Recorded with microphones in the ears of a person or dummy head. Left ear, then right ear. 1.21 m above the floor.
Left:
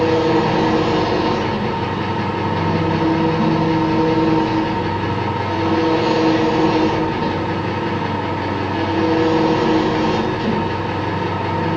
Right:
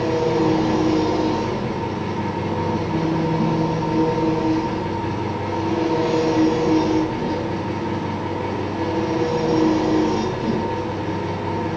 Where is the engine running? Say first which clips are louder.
Left 4 dB; 70° left (ahead or behind), 5 m.